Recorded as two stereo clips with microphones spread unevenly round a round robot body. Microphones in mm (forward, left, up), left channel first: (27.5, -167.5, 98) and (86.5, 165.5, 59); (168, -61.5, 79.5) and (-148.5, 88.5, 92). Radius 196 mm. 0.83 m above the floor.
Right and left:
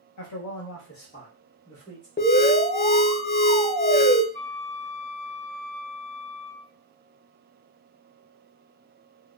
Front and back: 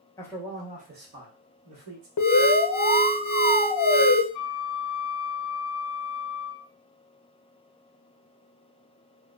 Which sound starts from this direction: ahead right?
An alarm, at 2.2 s.